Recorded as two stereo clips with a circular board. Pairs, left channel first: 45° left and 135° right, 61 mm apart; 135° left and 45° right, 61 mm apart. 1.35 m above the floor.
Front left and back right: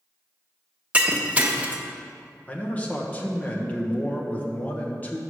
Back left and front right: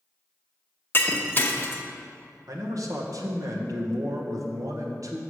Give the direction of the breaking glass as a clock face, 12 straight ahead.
6 o'clock.